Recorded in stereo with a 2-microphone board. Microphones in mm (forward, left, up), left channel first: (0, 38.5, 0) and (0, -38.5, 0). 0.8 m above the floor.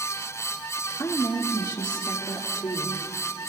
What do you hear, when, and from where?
1.0 s a woman speaking: 50° left (ahead or behind), 1.1 m; by 3.0 s 75° left (ahead or behind), 2.5 m